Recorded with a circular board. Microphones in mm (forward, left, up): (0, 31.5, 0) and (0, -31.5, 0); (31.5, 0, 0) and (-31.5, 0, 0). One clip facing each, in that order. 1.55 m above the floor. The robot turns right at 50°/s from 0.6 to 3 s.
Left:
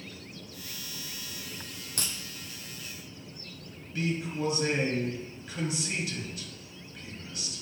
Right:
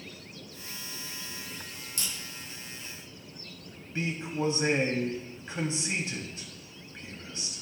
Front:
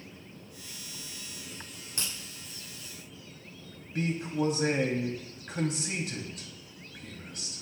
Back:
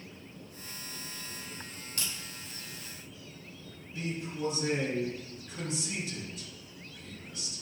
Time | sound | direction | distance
2.0 | a crack | 60° left | 6.5 m
4.0 | a man speaking | 30° right | 3 m